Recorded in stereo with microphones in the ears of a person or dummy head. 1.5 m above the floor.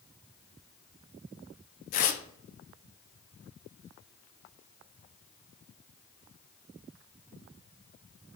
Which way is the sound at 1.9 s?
45° left (ahead or behind).